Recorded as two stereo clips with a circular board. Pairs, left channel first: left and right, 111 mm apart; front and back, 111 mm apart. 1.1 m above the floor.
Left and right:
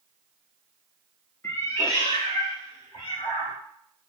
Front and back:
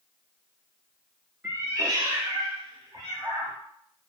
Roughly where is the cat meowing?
Behind left.